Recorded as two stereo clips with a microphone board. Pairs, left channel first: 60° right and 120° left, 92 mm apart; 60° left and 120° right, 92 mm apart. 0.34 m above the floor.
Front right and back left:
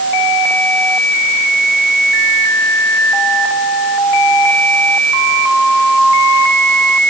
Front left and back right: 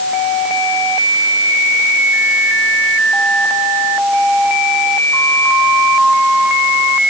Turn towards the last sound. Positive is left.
No sound to turn to.